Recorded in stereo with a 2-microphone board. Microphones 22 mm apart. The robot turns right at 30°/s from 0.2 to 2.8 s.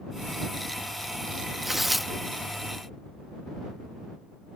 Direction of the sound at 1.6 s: 15° right (ahead or behind).